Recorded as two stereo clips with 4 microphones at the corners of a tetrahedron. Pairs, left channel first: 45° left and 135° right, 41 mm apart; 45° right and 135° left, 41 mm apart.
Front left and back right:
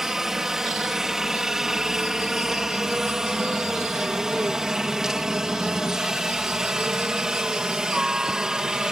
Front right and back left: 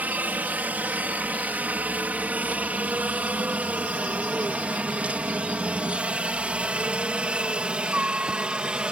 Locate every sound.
0.0 s a helicopter: 150° left; by 8.9 s 165° left